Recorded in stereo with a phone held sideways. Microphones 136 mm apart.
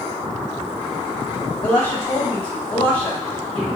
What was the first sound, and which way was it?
A woman speaking, 15° left (ahead or behind).